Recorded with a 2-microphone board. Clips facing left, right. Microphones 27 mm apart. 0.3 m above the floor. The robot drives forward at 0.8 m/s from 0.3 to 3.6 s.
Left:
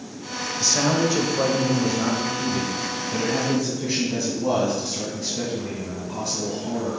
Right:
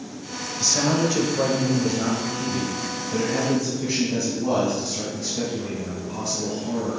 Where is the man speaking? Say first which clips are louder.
Even; 10° left (ahead or behind), 1.2 m; by 7.0 s 5° left (ahead or behind), 2.5 m.